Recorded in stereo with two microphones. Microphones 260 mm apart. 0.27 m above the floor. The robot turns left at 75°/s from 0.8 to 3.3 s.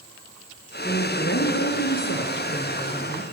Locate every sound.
0.8 s a woman speaking: 160° left, 4.5 m; by 3.2 s 15° right, 4.5 m